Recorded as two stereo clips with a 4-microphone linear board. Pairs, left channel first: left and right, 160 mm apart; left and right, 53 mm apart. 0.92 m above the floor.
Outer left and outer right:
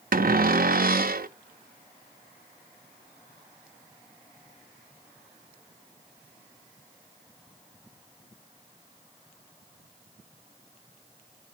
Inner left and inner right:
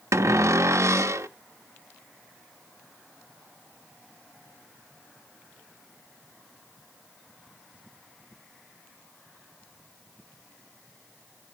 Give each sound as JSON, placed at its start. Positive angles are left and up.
{"t": 0.1, "sound": "a cupboard door", "side_deg": -70, "distance_m": 0.5}